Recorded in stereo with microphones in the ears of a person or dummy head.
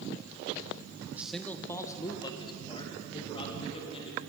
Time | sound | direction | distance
1.1 | a man speaking | 15° right (ahead or behind) | 0.6 m